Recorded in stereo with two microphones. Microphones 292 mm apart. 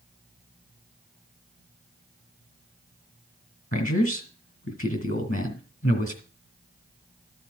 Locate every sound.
3.7 s a man speaking: 30° left (ahead or behind), 2 m